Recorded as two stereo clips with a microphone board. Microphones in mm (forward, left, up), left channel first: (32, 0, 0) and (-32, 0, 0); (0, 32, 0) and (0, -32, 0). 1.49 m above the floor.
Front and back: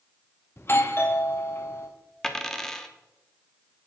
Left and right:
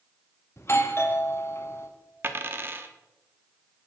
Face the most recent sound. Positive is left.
turn(degrees=-70)